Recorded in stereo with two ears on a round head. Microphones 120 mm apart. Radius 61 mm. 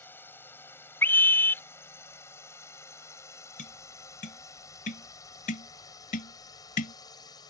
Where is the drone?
15° left (ahead or behind); by 7.5 s 30° left (ahead or behind).